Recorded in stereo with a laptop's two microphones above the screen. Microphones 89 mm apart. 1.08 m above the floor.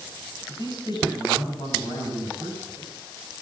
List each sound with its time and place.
0.5 s a man speaking: 55° left (ahead or behind), 7 m; by 2.9 s 50° left (ahead or behind), 8.5 m